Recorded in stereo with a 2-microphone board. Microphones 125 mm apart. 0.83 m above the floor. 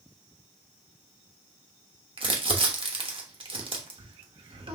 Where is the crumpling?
45° right (ahead or behind), 0.9 m.